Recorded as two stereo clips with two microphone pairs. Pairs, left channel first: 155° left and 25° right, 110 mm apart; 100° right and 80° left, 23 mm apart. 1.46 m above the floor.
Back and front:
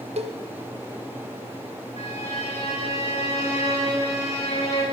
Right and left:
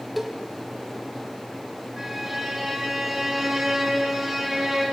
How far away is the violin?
About 6 m.